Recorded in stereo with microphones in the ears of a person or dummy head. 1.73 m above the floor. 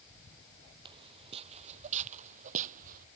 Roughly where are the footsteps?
Right.